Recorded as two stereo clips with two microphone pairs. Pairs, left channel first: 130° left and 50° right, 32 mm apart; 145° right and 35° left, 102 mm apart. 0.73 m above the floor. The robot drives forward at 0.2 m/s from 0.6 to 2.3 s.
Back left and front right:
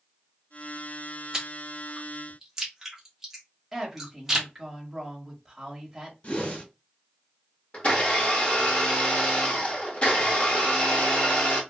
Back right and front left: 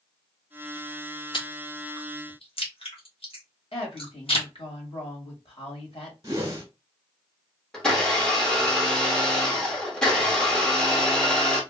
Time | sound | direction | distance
1.3 | chewing | 115° right | 0.8 m
3.7 | a woman speaking | 140° right | 1.4 m
6.2 | a whoosh | 95° left | 1.5 m
7.7 | a blender | 140° left | 1.2 m